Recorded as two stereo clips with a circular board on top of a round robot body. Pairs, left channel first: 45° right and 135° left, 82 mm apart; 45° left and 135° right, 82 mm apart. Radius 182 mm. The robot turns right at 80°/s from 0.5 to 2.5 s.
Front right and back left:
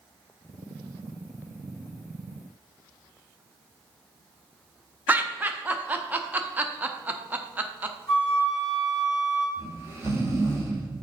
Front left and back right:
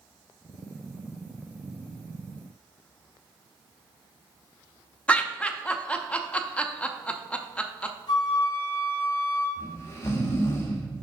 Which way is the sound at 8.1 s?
75° left.